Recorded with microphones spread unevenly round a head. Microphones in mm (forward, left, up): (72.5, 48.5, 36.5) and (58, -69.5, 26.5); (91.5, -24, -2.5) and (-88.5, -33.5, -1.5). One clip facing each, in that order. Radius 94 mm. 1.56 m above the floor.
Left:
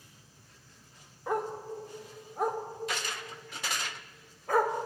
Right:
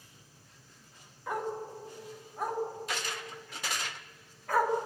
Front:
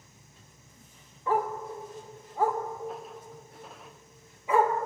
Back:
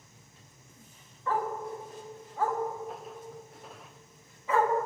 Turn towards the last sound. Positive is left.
turn(degrees=60)